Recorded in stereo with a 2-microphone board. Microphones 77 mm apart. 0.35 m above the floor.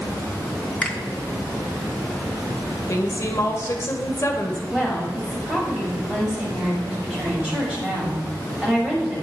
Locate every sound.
0.8 s a finger snap: 10° left (ahead or behind), 0.8 m
2.9 s a woman speaking: 45° left (ahead or behind), 1.0 m
4.7 s a woman speaking: 15° right (ahead or behind), 2 m